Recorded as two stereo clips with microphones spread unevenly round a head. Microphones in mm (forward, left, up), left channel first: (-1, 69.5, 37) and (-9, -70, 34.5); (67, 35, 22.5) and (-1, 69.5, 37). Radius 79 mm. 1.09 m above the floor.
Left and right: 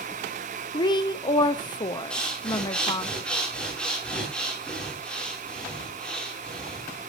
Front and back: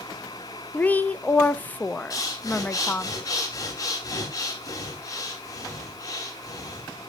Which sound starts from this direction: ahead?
Breathing, at 2.1 s.